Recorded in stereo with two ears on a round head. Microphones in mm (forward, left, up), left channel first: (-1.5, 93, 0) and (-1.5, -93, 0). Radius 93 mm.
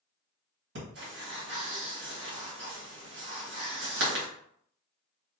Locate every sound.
0.8 s breathing: 55° right (ahead or behind), 1.8 m